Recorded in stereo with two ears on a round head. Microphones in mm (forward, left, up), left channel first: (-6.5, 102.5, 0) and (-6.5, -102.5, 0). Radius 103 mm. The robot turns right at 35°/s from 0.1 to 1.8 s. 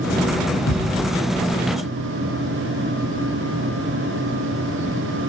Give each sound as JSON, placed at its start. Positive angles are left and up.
{"t": 0.7, "sound": "a thud", "side_deg": 75, "distance_m": 9.5}